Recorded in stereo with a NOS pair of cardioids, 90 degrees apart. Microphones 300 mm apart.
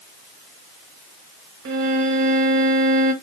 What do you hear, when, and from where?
1.6 s a violin: 65° right, 1.2 m